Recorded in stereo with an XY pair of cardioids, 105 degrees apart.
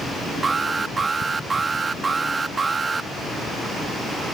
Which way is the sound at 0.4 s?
30° right.